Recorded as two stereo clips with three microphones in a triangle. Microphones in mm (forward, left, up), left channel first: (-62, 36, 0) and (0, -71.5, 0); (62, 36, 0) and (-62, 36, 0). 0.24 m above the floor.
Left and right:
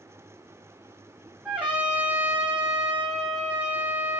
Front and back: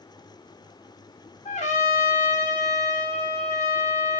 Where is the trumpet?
20° left, 3.5 m.